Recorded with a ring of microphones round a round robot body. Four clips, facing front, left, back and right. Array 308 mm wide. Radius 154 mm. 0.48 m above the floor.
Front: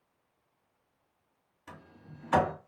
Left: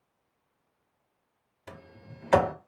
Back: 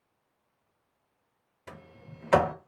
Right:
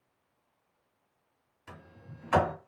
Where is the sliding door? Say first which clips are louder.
Left 3 dB, back 2 dB; 140° left, 0.8 m.